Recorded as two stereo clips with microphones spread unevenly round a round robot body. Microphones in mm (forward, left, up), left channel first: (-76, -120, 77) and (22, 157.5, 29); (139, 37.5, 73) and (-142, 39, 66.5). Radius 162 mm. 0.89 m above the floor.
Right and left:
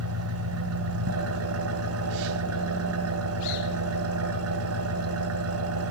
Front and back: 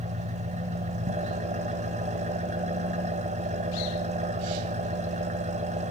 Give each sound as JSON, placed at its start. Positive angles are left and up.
{"t": 0.0, "sound": "an engine running", "azimuth_deg": 115, "distance_m": 1.7}